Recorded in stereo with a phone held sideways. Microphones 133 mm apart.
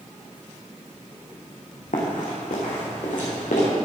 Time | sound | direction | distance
1.9 | running footsteps | 75° left (ahead or behind) | 3 m